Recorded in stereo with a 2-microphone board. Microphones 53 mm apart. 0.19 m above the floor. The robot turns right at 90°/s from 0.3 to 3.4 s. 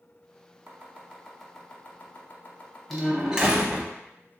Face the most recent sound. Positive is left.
turn(degrees=-15)  # may be behind; listen again after turning